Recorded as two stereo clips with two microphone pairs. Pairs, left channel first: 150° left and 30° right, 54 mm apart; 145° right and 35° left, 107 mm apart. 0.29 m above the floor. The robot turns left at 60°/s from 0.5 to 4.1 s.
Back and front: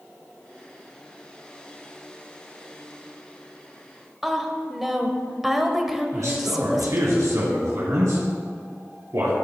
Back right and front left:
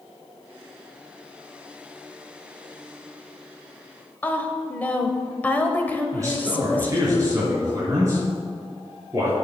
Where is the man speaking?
25° right, 4 m.